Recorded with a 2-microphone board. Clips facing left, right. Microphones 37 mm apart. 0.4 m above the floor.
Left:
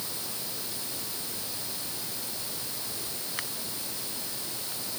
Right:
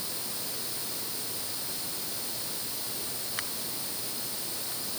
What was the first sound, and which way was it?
Only background noise.